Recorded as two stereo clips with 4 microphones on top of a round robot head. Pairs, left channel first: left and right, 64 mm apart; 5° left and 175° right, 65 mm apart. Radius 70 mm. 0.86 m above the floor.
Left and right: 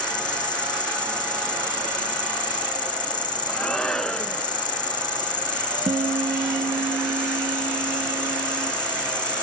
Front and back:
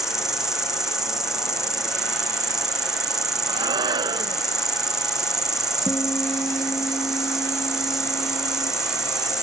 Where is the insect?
100° left.